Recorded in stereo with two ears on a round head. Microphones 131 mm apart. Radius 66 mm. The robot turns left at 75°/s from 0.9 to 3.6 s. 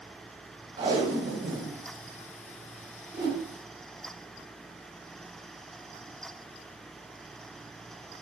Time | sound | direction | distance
0.8 | tape being pulled | 35° right | 0.6 m
3.1 | a whoosh | 35° right (ahead or behind) | 0.7 m